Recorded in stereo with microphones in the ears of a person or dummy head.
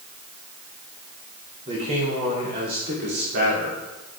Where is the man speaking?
30° right (ahead or behind), 2.5 m; by 3.8 s 55° right (ahead or behind), 3 m.